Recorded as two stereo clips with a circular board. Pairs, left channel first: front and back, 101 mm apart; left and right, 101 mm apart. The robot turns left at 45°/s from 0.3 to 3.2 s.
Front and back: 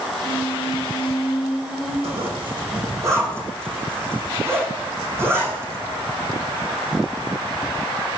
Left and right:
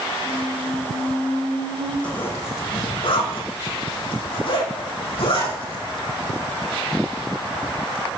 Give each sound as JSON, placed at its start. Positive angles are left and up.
{"t": 0.2, "sound": "a squeak", "azimuth_deg": -10, "distance_m": 5.5}
{"t": 2.0, "sound": "a zipper", "azimuth_deg": 170, "distance_m": 7.5}